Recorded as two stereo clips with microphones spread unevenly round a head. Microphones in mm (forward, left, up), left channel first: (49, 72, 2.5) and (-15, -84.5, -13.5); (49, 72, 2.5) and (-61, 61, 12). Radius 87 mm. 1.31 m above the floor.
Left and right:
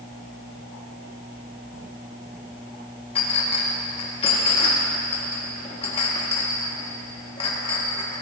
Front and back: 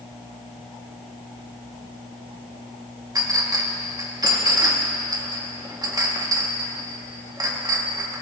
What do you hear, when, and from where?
3.1 s a clink: 130° left, 1.7 m